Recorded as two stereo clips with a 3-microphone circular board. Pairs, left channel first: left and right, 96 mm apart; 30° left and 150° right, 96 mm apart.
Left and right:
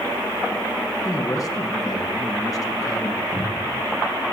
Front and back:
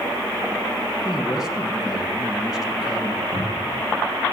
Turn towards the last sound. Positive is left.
turn(degrees=-135)